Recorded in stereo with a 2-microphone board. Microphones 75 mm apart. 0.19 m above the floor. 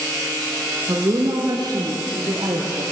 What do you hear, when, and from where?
0.9 s a woman speaking: 55° right (ahead or behind), 3 m; by 2.8 s 70° right (ahead or behind), 5.5 m